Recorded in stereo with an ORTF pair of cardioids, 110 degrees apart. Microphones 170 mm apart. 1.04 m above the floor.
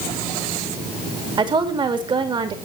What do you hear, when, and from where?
1.4 s a woman speaking: 30° right, 2.5 m